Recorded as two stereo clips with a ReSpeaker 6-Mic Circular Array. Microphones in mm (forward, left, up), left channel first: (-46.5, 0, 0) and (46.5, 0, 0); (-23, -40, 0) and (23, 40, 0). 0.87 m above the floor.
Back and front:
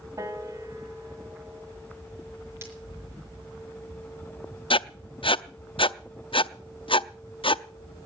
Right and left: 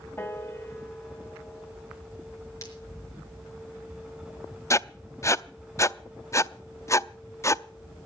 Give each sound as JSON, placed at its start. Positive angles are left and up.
{"t": 0.2, "sound": "a piano", "azimuth_deg": -55, "distance_m": 1.8}
{"t": 2.6, "sound": "breaking glass", "azimuth_deg": -65, "distance_m": 5.0}
{"t": 4.7, "sound": "writing", "azimuth_deg": -175, "distance_m": 0.5}